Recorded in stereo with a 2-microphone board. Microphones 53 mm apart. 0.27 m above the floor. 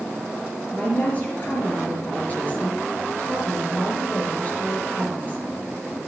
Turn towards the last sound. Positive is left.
turn(degrees=30)  # may be behind; listen again after turning